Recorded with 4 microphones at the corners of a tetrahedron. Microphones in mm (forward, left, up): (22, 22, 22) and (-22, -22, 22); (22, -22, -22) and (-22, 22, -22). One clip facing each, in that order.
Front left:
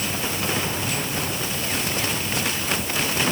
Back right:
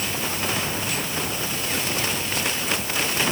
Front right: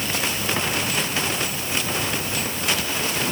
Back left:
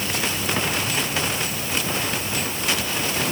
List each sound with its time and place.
Only background noise.